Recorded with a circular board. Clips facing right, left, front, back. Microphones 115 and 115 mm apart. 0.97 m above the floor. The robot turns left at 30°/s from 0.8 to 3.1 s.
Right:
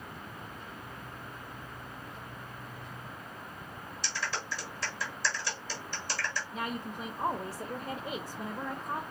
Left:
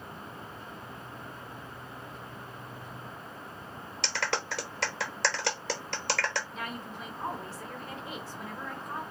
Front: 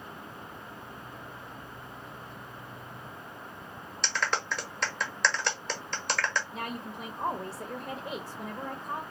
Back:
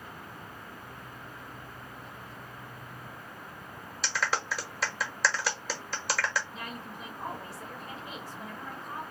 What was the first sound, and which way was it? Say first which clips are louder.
A clap: left 5 dB, even; 95° left.